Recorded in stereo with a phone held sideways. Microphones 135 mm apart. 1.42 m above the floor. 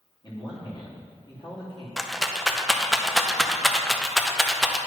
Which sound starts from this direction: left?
A man speaking, at 0.2 s.